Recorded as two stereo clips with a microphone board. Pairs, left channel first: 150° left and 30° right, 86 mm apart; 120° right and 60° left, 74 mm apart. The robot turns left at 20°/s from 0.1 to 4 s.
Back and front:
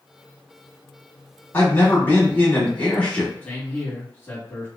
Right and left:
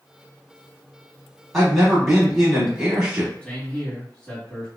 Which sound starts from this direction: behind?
A man speaking, at 3.4 s.